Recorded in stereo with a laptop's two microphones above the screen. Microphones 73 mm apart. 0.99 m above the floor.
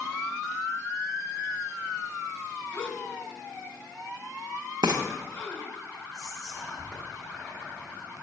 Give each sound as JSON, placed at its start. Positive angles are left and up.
{"t": 2.7, "sound": "a gasp", "side_deg": 30, "distance_m": 1.0}
{"t": 4.8, "sound": "frying", "side_deg": -65, "distance_m": 0.6}
{"t": 6.1, "sound": "whispering", "side_deg": 10, "distance_m": 1.6}